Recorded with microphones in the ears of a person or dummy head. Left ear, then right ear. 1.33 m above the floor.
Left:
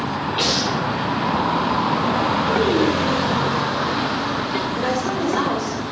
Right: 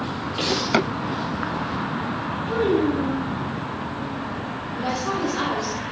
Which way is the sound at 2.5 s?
55° left (ahead or behind).